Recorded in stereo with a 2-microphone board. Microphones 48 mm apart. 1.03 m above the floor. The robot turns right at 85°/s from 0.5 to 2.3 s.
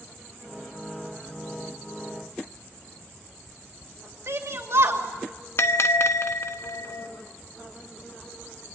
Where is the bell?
60° left (ahead or behind), 1.1 m.